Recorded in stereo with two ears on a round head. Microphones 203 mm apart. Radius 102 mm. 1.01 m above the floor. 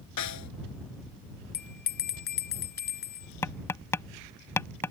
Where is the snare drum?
85° left.